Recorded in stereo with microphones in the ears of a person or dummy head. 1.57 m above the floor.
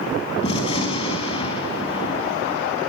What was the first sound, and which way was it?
A gunshot, 35° left (ahead or behind).